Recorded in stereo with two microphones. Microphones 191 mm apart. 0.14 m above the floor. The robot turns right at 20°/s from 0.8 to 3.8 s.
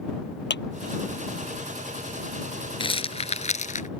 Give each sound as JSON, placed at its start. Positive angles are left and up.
{"t": 0.5, "sound": "a clap", "side_deg": 70}
{"t": 2.8, "sound": "a rattle", "side_deg": 25}